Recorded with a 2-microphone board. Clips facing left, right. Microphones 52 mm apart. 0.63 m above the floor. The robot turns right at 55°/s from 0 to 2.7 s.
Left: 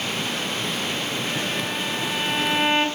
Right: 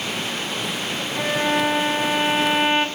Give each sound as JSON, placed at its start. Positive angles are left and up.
{"t": 1.1, "sound": "a violin", "azimuth_deg": -100, "distance_m": 4.0}